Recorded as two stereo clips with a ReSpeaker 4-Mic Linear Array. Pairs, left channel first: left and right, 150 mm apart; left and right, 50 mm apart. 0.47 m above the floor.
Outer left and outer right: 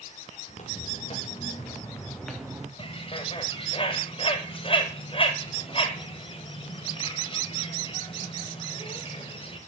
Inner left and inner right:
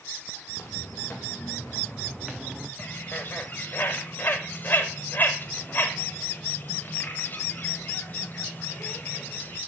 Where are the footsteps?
55° left (ahead or behind), 2 m; by 2.7 s 15° right (ahead or behind), 1.3 m.